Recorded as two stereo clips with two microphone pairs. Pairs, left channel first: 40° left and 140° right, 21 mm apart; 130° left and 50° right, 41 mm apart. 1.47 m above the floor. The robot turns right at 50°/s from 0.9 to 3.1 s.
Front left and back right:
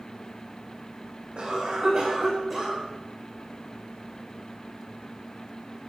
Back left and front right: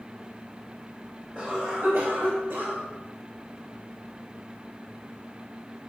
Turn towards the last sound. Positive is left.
turn(degrees=-55)